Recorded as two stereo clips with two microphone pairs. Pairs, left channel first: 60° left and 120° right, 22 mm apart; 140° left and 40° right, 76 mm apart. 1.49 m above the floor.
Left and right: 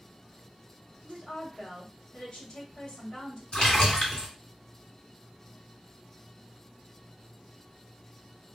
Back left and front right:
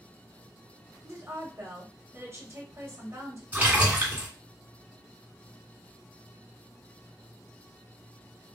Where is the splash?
20° left, 2 m.